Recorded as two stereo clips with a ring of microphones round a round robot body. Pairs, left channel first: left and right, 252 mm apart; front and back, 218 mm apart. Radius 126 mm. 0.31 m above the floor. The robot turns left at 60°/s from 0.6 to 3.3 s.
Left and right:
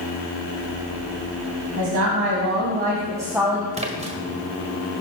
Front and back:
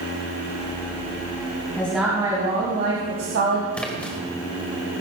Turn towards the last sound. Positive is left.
turn(degrees=-75)